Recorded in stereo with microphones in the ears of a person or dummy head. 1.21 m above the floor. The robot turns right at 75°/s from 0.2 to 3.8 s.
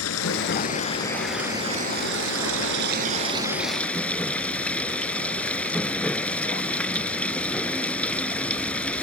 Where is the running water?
100° left; by 9.0 s 10° left.